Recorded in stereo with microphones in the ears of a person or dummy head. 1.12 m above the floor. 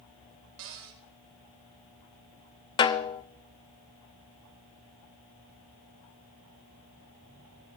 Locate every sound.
0.6 s a cupboard door: 75° right (ahead or behind), 2.5 m
2.8 s a snare drum: 25° left (ahead or behind), 0.6 m